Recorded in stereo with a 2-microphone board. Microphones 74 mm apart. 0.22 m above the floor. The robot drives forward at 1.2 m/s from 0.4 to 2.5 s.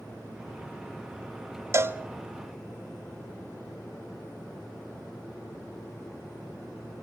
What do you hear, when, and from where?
1.7 s a cowbell: 35° right (ahead or behind), 0.7 m; by 2.0 s 30° right (ahead or behind), 0.9 m